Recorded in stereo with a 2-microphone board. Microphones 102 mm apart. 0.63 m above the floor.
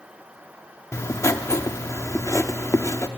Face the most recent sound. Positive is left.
turn(degrees=30)  # may be behind; listen again after turning